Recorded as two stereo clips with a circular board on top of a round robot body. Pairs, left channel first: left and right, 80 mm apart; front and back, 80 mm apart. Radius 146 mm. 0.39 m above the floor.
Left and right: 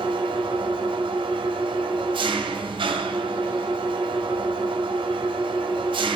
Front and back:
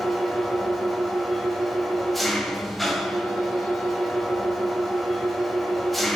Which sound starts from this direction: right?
An engine running, at 0.0 s.